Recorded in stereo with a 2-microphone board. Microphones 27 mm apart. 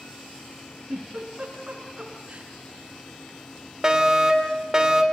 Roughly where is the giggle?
Right.